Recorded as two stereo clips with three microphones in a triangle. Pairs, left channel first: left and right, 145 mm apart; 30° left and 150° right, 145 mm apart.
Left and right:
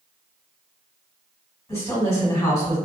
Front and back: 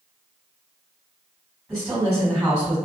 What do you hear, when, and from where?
1.7 s a woman speaking: 135° left, 2.0 m